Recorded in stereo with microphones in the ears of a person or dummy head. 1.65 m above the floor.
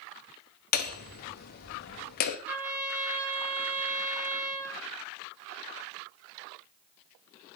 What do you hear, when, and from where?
0.7 s hammering: 50° left (ahead or behind), 0.7 m
2.5 s a trumpet: 15° right (ahead or behind), 1.8 m